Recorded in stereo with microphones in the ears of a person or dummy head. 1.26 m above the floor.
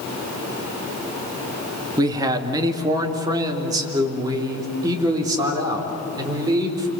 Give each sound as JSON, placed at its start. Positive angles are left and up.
{"t": 2.0, "sound": "a man speaking", "side_deg": -15, "distance_m": 2.0}